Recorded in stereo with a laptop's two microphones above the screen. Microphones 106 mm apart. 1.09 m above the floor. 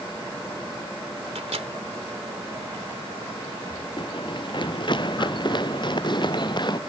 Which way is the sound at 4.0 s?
50° left (ahead or behind).